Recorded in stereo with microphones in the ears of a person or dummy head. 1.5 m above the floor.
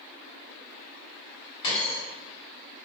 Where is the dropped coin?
30° left (ahead or behind), 1.3 m.